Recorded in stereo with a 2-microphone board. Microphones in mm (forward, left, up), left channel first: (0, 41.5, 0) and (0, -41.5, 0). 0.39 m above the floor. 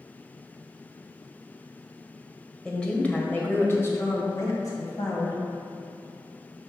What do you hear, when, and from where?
2.6 s a woman speaking: 10° left (ahead or behind), 1.4 m; by 5.4 s 50° left (ahead or behind), 2 m